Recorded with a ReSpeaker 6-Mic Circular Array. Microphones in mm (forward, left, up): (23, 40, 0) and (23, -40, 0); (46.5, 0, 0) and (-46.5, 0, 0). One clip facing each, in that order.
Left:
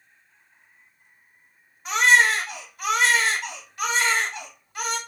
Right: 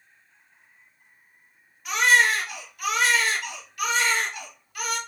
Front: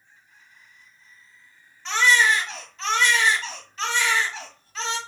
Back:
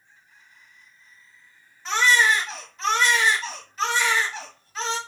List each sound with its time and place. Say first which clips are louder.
1.9 s a baby crying: left 2 dB, even; 100° left, 1.0 m